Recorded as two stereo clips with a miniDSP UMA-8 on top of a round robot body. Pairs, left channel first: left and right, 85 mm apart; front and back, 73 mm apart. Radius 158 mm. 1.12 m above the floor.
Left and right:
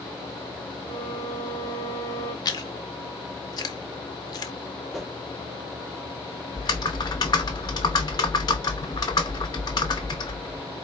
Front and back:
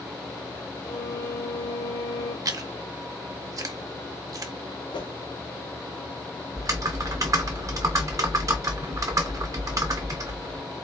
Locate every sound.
0.9 s a violin: 45° left, 0.9 m
2.5 s chewing: 135° left, 0.6 m
4.9 s a whoosh: straight ahead, 1.0 m
6.5 s typing on a keyboard: 130° left, 0.6 m